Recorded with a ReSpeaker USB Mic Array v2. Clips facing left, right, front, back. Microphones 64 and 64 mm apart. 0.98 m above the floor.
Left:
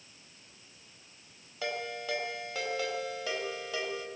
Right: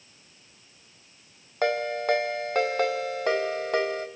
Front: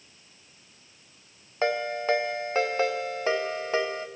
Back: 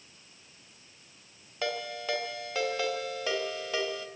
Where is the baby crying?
No baby crying in this recording.